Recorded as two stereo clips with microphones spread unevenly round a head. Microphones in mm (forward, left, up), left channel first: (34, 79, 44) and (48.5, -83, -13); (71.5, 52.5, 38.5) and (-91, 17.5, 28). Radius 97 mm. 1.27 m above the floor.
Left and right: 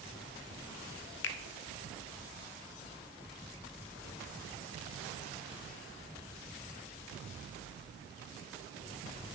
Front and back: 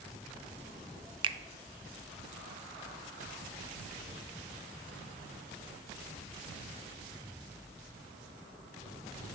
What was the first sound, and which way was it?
A finger snap, 130° left.